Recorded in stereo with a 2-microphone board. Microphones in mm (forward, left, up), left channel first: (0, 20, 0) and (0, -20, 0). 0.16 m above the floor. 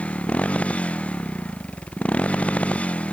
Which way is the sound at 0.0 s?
30° left (ahead or behind).